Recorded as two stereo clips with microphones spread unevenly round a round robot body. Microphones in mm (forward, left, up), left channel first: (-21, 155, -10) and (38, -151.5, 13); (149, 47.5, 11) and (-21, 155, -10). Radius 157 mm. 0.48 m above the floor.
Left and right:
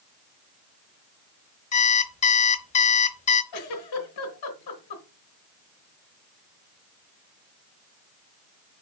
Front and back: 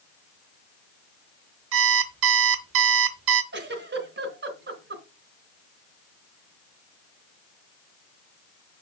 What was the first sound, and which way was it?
An alarm clock, 170° left.